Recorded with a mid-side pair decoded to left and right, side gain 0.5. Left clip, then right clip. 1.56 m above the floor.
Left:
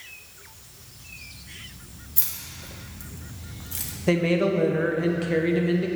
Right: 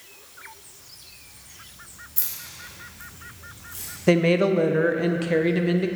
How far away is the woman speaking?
About 0.7 m.